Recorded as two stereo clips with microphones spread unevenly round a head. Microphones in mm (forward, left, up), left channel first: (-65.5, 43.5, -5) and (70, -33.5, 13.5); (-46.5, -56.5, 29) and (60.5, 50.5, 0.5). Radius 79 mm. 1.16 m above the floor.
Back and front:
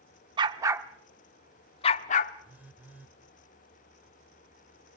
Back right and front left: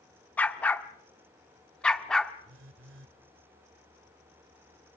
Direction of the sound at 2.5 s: 45° left.